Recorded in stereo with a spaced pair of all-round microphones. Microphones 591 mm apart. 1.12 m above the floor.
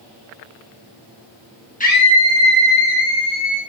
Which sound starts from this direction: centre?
A scream, at 1.8 s.